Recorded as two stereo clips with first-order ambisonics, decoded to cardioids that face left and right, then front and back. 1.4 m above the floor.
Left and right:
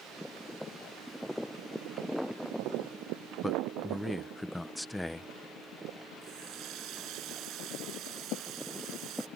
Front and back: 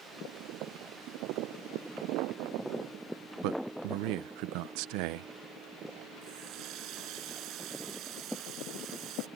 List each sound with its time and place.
3.4 s a man speaking: 175° left
6.2 s a running tap: 135° right